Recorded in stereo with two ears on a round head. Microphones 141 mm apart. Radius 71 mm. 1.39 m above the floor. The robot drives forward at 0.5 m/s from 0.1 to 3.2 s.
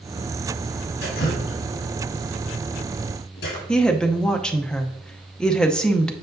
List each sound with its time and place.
1.0 s dripping: 70° left (ahead or behind), 4 m
3.7 s a woman speaking: 5° left (ahead or behind), 0.6 m